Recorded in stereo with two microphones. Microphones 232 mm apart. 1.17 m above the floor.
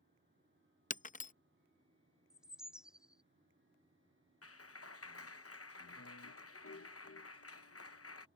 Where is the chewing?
I don't hear chewing.